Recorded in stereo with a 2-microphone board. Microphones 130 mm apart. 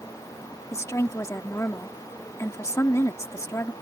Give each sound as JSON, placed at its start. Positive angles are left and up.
{"t": 0.7, "sound": "a woman speaking", "side_deg": 25}